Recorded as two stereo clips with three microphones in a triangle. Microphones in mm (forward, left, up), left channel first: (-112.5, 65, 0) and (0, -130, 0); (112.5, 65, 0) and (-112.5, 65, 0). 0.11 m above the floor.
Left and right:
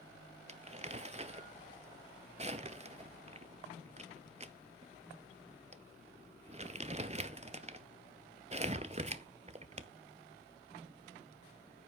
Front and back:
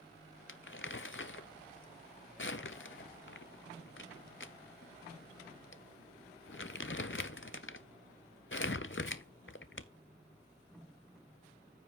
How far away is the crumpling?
About 0.5 m.